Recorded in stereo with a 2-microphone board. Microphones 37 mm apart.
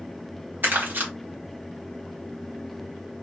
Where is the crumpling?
65° right (ahead or behind), 1.3 m.